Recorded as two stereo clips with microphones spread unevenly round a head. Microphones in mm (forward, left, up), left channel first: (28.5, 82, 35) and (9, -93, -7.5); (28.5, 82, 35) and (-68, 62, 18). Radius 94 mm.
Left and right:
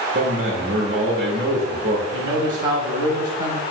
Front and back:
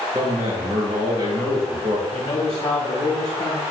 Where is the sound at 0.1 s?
115° right, 3 m.